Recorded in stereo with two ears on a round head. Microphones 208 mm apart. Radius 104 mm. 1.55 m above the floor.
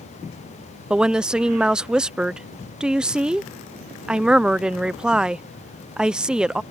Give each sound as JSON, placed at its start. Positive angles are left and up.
{"t": 0.9, "sound": "a woman speaking", "side_deg": -5}